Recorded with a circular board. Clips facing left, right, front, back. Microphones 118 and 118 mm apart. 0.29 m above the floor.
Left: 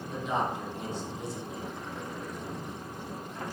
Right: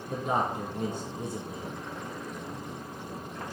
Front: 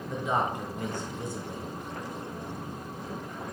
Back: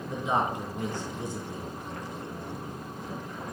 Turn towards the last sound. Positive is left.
turn(degrees=-110)